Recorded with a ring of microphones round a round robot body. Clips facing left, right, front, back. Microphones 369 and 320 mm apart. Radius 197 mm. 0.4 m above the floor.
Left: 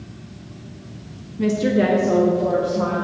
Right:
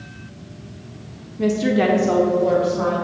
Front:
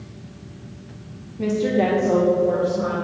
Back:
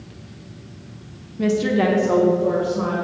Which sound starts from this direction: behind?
A woman speaking, at 1.4 s.